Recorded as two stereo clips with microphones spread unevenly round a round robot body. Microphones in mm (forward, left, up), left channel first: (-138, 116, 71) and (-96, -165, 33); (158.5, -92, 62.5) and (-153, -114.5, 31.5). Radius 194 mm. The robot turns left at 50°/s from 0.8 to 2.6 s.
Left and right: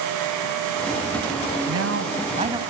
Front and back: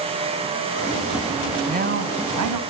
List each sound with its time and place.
1.7 s a man speaking: 110° right, 3 m; by 2.6 s 155° right, 3 m